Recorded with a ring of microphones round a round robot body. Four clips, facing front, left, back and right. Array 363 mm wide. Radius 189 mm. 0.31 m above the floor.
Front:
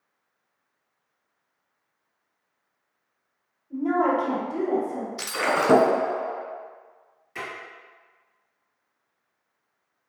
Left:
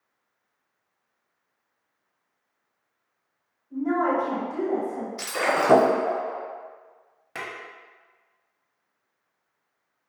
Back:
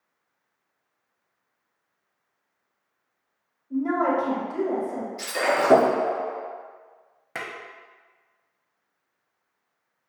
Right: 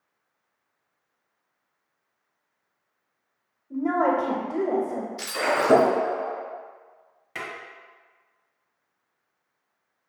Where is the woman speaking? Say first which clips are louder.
Right 1 dB, front 1 dB; 100° right, 1.3 m.